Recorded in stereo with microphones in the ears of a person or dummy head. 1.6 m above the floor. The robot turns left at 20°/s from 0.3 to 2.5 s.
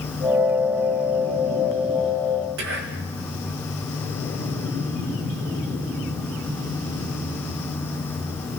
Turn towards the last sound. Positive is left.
turn(degrees=-60)  # may be behind; listen again after turning